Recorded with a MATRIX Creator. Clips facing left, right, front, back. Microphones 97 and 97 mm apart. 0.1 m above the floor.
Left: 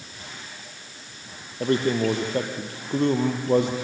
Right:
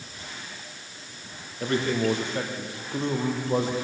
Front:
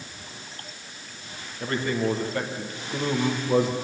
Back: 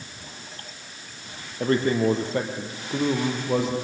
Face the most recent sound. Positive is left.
turn(degrees=90)